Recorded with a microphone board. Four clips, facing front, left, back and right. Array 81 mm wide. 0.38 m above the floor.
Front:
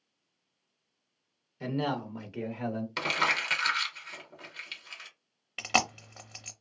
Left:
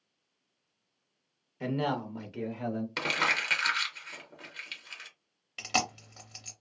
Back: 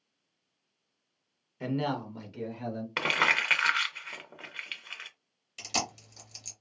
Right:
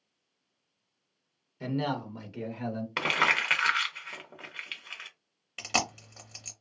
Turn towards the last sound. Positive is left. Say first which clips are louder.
# even, front 6 dB
turn(degrees=-5)